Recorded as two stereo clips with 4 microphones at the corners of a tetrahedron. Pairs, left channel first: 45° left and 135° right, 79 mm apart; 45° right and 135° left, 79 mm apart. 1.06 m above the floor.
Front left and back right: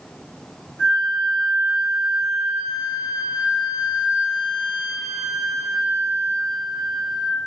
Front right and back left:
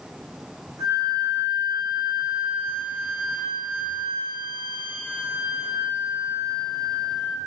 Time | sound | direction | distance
0.8 | a flute | 100° left | 1.5 m